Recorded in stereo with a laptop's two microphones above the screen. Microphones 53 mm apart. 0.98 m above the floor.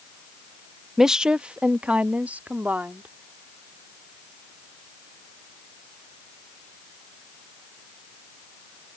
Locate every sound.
1.0 s a woman speaking: 5° right (ahead or behind); by 3.1 s 30° right (ahead or behind)